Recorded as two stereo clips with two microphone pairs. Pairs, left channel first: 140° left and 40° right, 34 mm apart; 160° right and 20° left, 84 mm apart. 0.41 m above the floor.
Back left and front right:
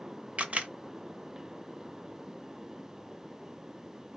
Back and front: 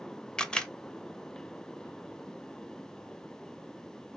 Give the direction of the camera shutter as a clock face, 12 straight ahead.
3 o'clock.